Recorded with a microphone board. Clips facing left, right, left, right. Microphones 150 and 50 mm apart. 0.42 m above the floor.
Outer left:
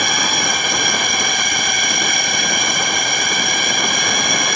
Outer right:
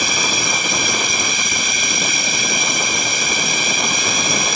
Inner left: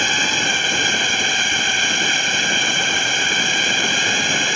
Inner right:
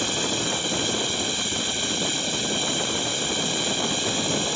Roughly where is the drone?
Left.